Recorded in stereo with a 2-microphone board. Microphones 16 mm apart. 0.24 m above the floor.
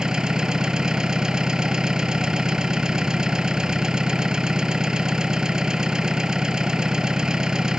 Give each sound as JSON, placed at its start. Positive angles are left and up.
{"t": 0.0, "sound": "an engine running", "side_deg": -50}